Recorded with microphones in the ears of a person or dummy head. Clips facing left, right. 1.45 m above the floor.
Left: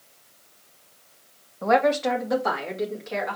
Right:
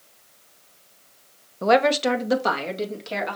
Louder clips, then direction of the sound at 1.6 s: Right 2 dB; 50° right (ahead or behind).